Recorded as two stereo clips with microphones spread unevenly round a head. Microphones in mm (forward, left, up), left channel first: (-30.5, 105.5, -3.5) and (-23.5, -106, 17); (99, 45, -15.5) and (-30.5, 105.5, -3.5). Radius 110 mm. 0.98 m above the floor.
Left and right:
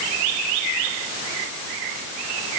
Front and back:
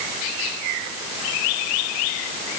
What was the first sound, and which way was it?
Only background noise.